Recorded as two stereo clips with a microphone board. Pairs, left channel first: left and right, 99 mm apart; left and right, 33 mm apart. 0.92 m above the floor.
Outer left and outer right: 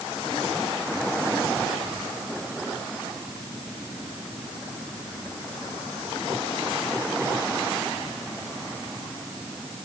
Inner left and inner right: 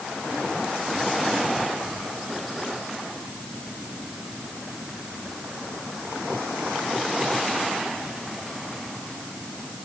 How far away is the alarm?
No alarm in this recording.